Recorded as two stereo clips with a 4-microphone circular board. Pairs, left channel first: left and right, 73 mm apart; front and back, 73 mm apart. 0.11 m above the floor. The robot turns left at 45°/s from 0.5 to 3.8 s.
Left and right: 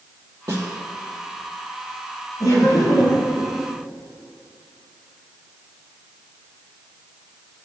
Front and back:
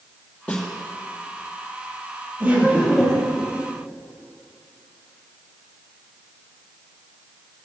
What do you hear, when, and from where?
0.5 s a snare drum: 70° right, 2 m; by 0.7 s 75° right, 2 m
2.4 s laughter: 120° left, 3 m; by 3.5 s 70° left, 3 m